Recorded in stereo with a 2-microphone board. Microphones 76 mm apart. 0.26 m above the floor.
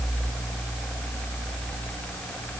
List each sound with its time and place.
Only background noise.